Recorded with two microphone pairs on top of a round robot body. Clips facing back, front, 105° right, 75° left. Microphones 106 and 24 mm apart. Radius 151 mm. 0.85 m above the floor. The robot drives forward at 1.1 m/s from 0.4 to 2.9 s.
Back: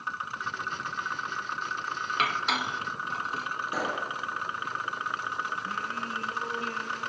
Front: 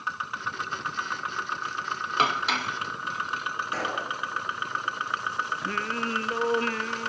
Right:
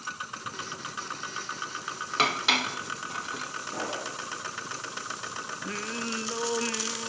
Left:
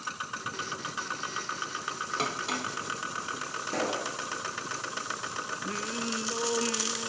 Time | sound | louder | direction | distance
2.2 | dishes clattering | front 3 dB, right 10 dB | 60° right | 0.7 m
3.7 | a pop | even, left 4 dB | 100° left | 5 m
5.6 | singing | front 4 dB, right 2 dB | 35° right | 0.6 m